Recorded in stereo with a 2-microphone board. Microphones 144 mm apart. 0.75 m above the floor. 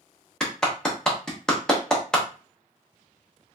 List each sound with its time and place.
0.4 s a clap: 5° left (ahead or behind), 0.8 m